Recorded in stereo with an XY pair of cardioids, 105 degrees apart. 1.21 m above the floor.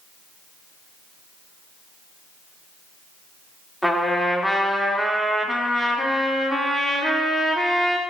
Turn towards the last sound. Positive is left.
turn(degrees=0)